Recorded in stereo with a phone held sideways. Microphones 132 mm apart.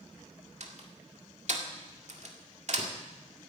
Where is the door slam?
60° right (ahead or behind), 1.8 m.